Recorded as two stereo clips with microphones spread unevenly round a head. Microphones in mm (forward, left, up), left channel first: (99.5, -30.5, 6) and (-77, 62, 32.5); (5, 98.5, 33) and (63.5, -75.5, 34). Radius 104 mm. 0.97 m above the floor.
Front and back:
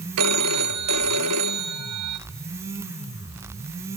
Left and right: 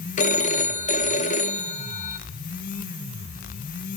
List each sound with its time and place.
0.2 s a phone ringing: 165° left, 1.4 m